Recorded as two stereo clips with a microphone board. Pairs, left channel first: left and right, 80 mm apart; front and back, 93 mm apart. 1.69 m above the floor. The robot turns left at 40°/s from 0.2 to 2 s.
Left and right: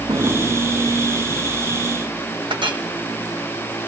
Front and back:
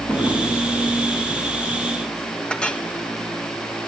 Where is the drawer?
70° right, 4.5 m; by 0.4 s 80° right, 4.5 m.